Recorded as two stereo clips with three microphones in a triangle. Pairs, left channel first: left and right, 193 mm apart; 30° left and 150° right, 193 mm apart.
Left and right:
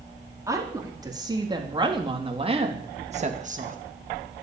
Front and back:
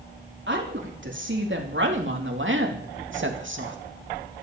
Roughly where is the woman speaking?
Behind.